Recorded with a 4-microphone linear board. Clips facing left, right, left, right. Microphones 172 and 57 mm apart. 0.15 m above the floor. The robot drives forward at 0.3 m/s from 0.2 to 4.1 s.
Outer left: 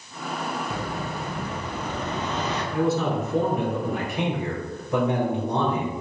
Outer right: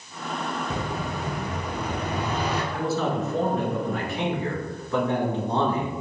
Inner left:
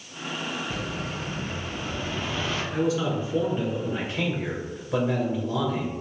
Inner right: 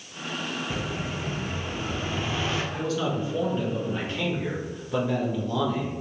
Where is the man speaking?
20° left (ahead or behind), 1.6 m; by 5.9 s 15° left (ahead or behind), 1.9 m.